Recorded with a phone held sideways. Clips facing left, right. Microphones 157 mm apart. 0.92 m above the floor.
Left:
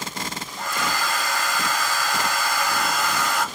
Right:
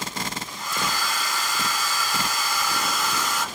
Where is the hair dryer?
70° left (ahead or behind), 1.6 m.